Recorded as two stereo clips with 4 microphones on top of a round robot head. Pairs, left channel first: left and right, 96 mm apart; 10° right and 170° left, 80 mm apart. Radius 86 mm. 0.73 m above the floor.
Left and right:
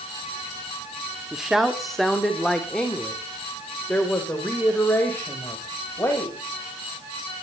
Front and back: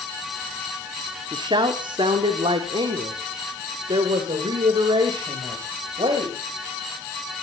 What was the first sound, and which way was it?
A woman speaking, 175° right.